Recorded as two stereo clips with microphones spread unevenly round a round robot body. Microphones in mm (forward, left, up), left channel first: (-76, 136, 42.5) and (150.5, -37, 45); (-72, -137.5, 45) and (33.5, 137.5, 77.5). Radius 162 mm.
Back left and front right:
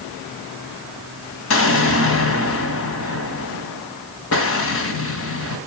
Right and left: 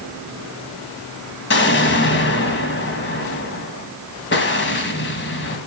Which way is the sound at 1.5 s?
165° right.